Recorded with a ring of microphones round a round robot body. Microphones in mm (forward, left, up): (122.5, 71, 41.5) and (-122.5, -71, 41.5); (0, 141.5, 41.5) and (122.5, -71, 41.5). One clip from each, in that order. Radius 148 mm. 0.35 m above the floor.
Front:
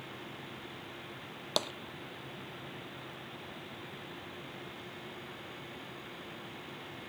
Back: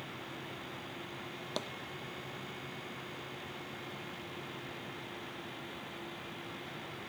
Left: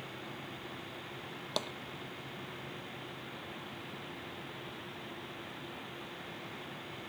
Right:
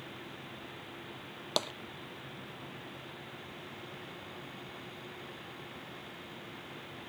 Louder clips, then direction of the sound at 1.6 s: Front 8 dB, right 4 dB; 15° right.